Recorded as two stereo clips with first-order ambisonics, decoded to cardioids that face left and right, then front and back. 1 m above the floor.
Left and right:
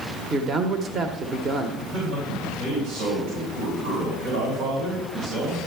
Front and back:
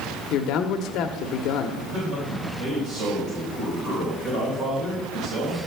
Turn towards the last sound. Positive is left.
turn(degrees=-120)